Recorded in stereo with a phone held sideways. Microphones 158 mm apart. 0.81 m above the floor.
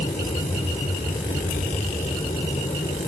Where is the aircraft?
45° left (ahead or behind).